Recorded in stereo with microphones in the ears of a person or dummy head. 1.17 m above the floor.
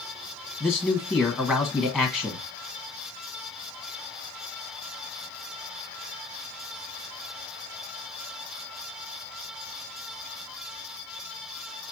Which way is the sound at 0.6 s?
Centre (ahead or behind).